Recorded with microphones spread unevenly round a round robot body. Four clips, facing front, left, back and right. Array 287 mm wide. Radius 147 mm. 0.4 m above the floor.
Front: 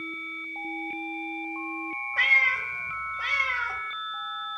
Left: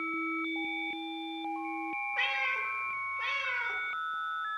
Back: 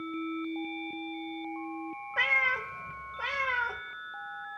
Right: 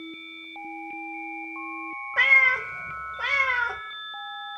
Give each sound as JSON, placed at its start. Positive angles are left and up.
{"t": 2.2, "sound": "a cat meowing", "azimuth_deg": -100, "distance_m": 1.0}